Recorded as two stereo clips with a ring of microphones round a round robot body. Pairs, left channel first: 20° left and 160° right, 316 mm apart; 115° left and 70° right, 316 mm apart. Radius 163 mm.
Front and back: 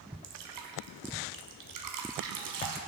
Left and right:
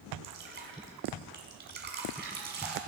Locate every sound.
0.2 s dripping: 125° right, 1.6 m